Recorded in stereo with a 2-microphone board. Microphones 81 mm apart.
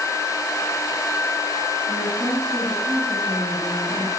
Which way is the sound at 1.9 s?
45° right (ahead or behind).